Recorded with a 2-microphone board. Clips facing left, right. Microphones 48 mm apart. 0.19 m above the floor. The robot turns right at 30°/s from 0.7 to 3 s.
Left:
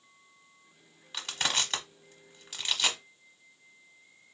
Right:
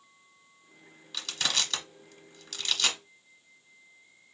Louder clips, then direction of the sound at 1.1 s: Even; 25° left (ahead or behind).